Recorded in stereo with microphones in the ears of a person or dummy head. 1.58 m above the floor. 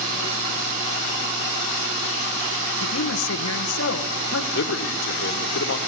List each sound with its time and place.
2.8 s a man speaking: 85° left, 1.5 m
4.5 s a man speaking: 70° left (ahead or behind), 2.0 m